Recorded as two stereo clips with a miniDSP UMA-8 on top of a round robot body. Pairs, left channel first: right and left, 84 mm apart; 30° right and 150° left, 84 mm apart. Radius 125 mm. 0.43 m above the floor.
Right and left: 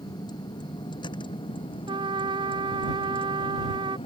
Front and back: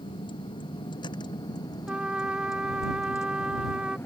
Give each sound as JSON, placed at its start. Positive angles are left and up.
{"t": 0.0, "sound": "a vehicle", "azimuth_deg": -50}
{"t": 1.9, "sound": "a trumpet", "azimuth_deg": 70}